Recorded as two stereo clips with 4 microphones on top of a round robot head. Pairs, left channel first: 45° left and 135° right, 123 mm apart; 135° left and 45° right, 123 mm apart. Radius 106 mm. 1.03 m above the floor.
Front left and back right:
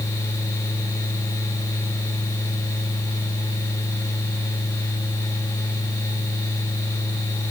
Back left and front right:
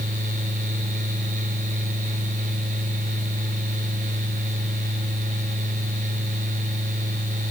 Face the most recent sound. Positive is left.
No sound to turn to.